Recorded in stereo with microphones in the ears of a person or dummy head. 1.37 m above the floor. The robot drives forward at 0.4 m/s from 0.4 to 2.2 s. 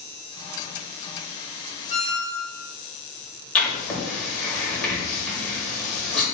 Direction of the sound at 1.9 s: 10° right (ahead or behind).